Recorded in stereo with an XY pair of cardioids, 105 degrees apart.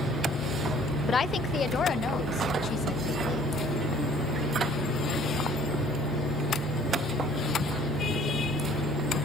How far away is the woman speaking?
About 0.6 m.